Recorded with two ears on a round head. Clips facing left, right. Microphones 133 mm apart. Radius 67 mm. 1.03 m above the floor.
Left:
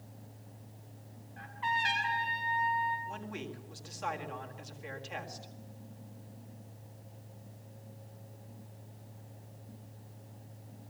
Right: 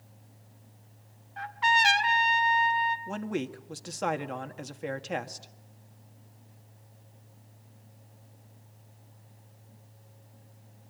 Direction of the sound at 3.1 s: 65° right (ahead or behind).